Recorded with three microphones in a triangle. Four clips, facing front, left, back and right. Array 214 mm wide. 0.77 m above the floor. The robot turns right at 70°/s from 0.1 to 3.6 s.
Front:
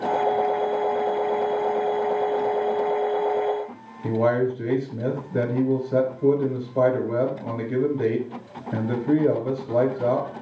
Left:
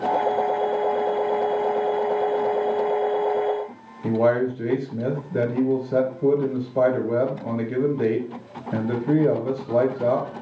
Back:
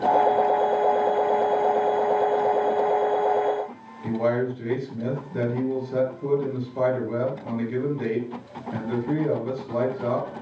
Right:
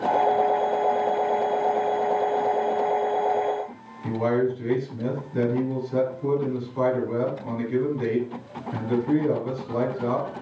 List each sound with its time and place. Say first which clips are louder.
4.0 s a man speaking: left 3 dB, front 2 dB; 60° left, 4 m